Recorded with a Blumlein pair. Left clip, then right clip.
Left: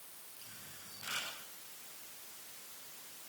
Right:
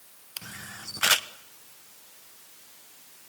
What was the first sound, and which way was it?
A camera shutter, 45° right.